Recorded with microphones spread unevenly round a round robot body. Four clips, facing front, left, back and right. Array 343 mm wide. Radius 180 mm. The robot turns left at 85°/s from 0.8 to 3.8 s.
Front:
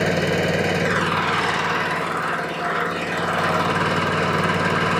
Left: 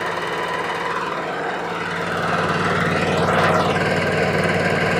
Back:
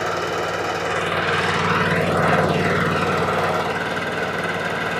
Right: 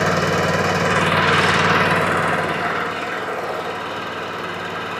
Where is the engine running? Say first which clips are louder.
Right 5 dB, front 2 dB; 45° right, 1.8 m; by 5.0 s 60° left, 1.8 m.